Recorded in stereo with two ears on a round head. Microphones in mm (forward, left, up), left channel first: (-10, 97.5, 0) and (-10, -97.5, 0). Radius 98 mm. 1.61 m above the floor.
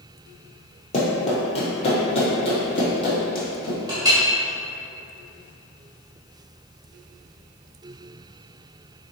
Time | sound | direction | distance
0.9 | running footsteps | 30° left (ahead or behind) | 1.8 m
3.9 | a clink | 20° right (ahead or behind) | 1.5 m